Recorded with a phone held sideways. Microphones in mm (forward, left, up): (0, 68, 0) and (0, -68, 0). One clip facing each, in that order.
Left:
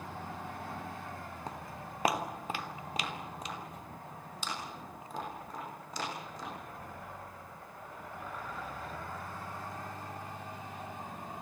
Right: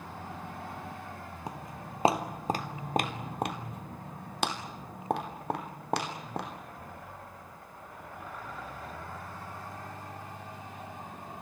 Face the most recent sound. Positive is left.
turn(degrees=-65)  # may be behind; listen again after turning